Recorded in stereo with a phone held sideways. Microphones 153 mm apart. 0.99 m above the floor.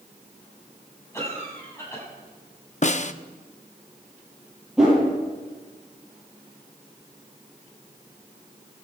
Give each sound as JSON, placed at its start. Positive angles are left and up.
{"t": 1.1, "sound": "a cough", "side_deg": 20, "distance_m": 7.5}
{"t": 2.8, "sound": "a snare drum", "side_deg": 50, "distance_m": 0.6}
{"t": 4.8, "sound": "a whoosh", "side_deg": -5, "distance_m": 8.5}